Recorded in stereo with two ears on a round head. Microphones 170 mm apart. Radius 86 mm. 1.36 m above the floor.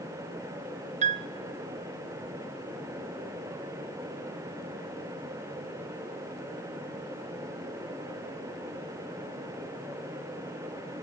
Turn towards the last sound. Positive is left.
turn(degrees=-35)  # may be behind; listen again after turning